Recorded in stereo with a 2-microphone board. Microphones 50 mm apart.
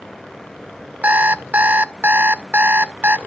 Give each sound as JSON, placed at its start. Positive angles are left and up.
{"t": 1.0, "sound": "an alarm clock", "side_deg": -35, "distance_m": 0.6}